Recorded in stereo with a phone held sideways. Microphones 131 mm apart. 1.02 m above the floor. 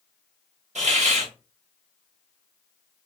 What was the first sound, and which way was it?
A hiss, 60° right (ahead or behind).